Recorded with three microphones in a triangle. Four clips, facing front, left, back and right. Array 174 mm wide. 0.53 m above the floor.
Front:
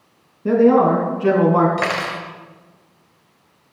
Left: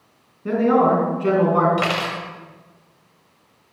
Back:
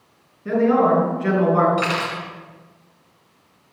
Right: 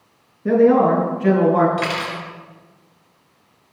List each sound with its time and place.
0.5 s a man speaking: 10° right, 5 m; by 1.7 s 20° right, 4.5 m
1.8 s cutlery clinking: 45° left, 1.7 m